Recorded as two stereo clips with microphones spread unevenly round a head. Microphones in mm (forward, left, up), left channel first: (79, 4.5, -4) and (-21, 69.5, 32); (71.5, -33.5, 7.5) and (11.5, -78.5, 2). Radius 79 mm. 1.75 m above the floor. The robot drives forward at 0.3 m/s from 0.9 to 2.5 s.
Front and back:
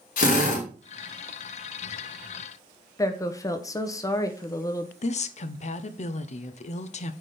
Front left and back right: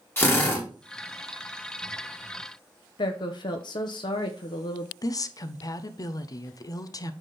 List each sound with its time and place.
0.2 s a drill: 25° right, 2.5 m
3.0 s a woman speaking: 35° left, 1.0 m
5.0 s a woman speaking: straight ahead, 0.9 m